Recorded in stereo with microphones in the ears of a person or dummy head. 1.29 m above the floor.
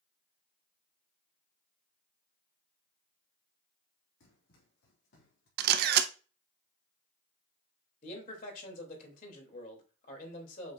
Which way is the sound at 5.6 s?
55° right (ahead or behind).